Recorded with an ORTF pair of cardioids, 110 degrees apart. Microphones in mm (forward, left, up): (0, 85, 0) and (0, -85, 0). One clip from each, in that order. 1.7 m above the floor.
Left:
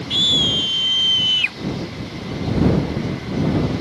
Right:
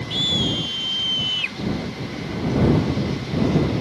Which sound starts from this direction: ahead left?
A scream, at 0.1 s.